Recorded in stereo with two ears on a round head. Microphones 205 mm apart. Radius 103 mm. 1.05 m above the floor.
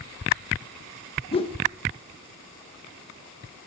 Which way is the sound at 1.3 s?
25° left (ahead or behind).